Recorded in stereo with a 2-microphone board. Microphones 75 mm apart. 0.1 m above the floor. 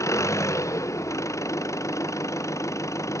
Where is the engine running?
40° left (ahead or behind).